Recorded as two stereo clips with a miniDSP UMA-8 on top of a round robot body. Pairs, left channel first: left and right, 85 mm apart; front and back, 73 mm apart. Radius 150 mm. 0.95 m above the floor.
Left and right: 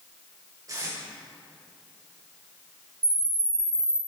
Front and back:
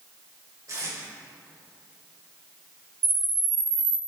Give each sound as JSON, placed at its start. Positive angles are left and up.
{"t": 0.7, "sound": "tape being pulled", "azimuth_deg": -140, "distance_m": 4.0}
{"t": 3.0, "sound": "a camera shutter", "azimuth_deg": -150, "distance_m": 2.5}